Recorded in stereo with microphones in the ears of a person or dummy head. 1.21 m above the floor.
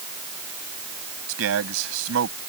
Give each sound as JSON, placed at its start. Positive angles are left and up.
{"t": 1.3, "sound": "a man speaking", "side_deg": -85}